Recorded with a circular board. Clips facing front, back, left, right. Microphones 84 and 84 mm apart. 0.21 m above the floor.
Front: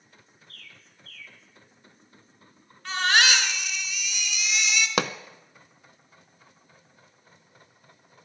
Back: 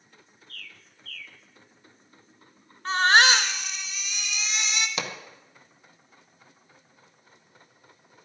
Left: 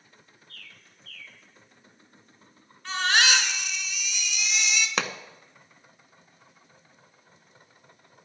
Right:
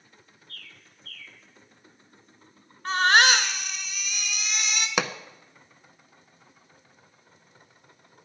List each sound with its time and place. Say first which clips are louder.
0.5 s a bird: back 5 dB, right 2 dB; 60° right, 0.7 m
2.9 s a baby crying: back 4 dB, right 5 dB; 130° right, 0.9 m
5.0 s a pop: front 7 dB, right 4 dB; 10° right, 0.5 m